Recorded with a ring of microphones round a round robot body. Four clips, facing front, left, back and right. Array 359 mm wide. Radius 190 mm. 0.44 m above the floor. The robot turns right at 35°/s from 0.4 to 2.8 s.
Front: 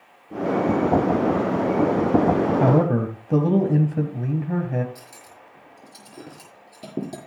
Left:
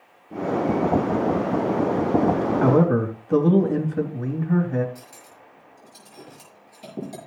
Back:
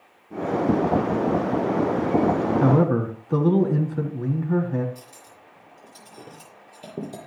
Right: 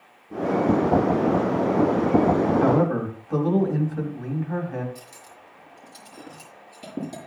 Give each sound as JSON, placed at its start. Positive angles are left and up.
{"t": 2.6, "sound": "a man speaking", "azimuth_deg": 25, "distance_m": 3.0}
{"t": 5.0, "sound": "cutlery clinking", "azimuth_deg": -15, "distance_m": 6.0}